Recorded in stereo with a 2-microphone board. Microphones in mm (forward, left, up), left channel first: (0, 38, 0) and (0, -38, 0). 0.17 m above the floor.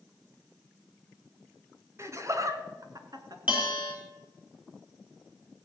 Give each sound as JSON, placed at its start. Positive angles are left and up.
{"t": 2.0, "sound": "laughter", "side_deg": -40, "distance_m": 1.3}
{"t": 3.5, "sound": "a bell", "side_deg": -20, "distance_m": 4.5}